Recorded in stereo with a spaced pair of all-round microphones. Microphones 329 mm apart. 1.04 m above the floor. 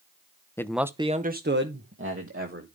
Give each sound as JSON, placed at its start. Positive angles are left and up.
{"t": 0.6, "sound": "a man speaking", "side_deg": 10, "distance_m": 0.7}